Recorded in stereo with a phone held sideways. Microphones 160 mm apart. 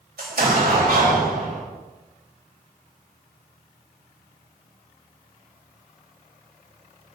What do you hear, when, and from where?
0.2 s an explosion: 85° right, 4 m